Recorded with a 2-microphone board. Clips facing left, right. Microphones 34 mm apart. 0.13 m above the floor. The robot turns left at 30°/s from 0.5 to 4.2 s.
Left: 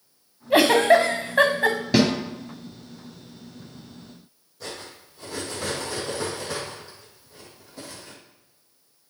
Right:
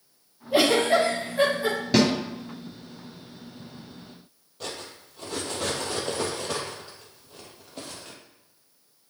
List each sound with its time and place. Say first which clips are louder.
0.5 s a giggle: left 4 dB; 85° left, 2.0 m; by 1.8 s 55° left (ahead or behind), 2.0 m
1.9 s a snare drum: even; centre (ahead or behind), 2 m; by 2.1 s 5° left (ahead or behind), 2 m
4.6 s cutlery clinking: even; 60° right (ahead or behind), 2.5 m